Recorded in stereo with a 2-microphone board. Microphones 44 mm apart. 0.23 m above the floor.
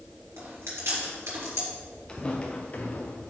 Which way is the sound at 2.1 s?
20° left (ahead or behind).